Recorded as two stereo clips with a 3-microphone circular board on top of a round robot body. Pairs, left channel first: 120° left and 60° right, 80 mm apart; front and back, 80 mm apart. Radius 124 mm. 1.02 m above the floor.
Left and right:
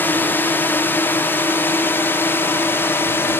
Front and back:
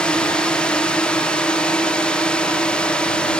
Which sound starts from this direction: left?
A drone, at 0.0 s.